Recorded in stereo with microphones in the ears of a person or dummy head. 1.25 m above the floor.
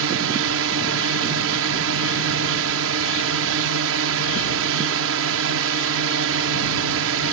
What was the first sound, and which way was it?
A drone, 65° right (ahead or behind).